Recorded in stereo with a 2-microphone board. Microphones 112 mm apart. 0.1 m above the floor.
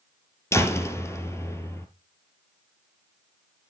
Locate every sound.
0.5 s a door slam: 25° left (ahead or behind), 1.7 m